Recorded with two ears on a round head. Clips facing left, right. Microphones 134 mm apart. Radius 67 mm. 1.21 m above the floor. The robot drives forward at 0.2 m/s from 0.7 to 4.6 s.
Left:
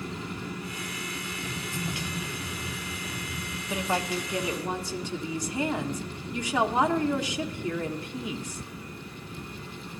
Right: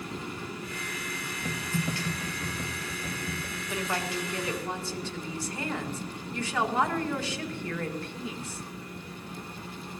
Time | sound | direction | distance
1.4 | typing on a keyboard | 85° right | 2.0 m
3.7 | a woman speaking | 15° left (ahead or behind) | 0.9 m